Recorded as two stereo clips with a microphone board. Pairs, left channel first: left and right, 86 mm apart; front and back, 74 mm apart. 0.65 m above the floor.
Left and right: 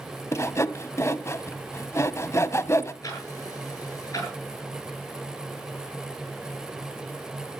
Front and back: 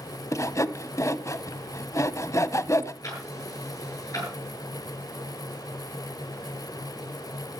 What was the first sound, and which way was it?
Sawing, 35° left.